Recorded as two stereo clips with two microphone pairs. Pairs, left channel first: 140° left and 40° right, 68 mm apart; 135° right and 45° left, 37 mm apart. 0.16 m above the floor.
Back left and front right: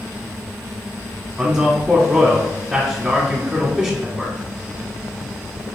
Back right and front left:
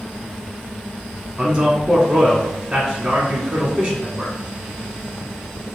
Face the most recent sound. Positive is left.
turn(degrees=10)